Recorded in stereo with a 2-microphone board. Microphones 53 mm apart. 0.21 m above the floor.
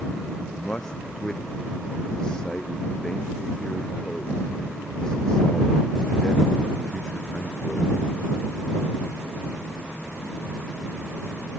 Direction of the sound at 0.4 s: 15° left (ahead or behind).